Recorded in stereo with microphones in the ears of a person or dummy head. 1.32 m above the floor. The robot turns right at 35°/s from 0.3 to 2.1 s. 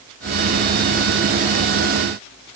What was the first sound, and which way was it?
Only background noise.